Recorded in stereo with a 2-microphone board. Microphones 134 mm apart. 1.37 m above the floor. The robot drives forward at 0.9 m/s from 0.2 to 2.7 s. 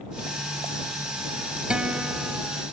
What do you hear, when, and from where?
1.7 s a guitar: 5° right (ahead or behind)